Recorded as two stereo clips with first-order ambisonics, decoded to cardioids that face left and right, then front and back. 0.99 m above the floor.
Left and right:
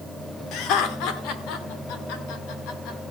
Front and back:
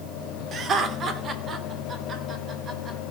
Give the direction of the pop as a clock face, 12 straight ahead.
No pop in this recording.